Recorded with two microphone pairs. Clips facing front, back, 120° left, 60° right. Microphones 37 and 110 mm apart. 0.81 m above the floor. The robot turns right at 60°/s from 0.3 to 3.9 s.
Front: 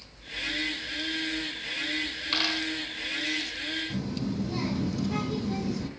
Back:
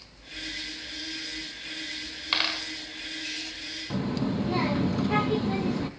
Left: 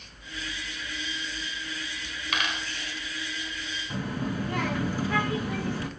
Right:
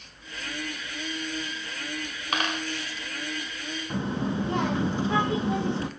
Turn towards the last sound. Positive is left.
turn(degrees=-130)